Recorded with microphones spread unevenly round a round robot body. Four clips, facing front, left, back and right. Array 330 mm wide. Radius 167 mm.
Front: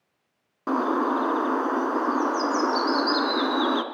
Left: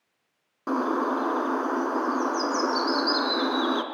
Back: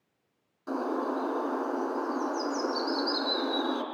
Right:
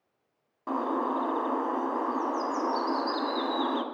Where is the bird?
25° left, 2.5 m.